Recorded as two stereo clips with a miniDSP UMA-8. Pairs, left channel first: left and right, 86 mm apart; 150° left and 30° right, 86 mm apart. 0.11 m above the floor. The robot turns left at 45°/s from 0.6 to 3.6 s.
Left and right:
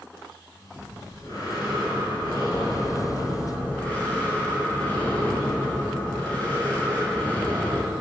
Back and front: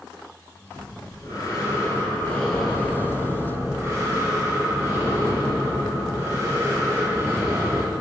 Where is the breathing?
150° left, 0.9 m; by 7.8 s 20° left, 0.9 m.